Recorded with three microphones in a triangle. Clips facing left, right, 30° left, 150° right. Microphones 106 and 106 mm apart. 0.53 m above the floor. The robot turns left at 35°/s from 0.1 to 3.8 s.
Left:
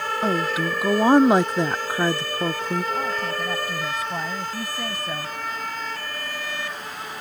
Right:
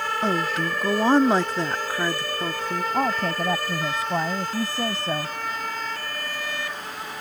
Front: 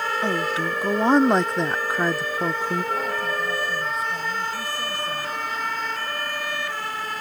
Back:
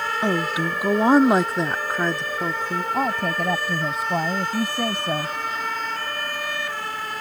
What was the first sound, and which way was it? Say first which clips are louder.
A woman speaking: left 2 dB, back 4 dB; 175° left.